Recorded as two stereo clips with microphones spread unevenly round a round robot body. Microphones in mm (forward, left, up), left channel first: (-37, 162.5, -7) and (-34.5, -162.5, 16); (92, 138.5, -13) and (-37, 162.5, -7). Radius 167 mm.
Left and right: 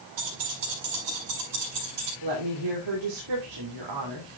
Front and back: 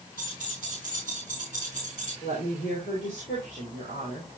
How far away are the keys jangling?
About 4.5 m.